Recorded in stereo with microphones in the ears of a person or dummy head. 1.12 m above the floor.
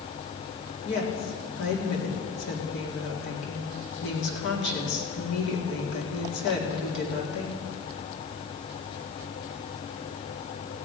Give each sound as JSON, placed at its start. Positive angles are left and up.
{"t": 0.8, "sound": "a woman speaking", "side_deg": 65, "distance_m": 2.5}